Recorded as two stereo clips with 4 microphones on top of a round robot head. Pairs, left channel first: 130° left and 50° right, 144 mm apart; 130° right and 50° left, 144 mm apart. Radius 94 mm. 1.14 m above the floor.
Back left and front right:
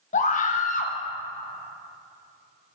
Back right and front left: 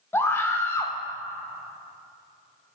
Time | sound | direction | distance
0.1 | a scream | 155° left | 1.0 m